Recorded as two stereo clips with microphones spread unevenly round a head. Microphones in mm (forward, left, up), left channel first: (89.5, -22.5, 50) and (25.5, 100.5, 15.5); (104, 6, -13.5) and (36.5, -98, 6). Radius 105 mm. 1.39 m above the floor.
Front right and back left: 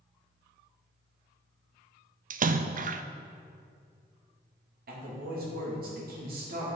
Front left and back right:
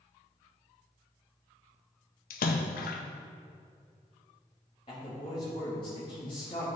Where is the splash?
85° left, 0.5 m.